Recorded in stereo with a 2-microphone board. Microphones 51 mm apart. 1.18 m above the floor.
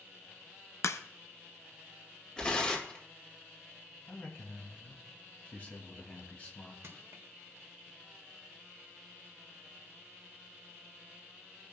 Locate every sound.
0.8 s a crack: 65° left (ahead or behind), 0.6 m
2.4 s tearing paper: 20° left (ahead or behind), 1.7 m
4.1 s a man speaking: 30° left (ahead or behind), 2 m
6.8 s crushing: 60° right (ahead or behind), 1.5 m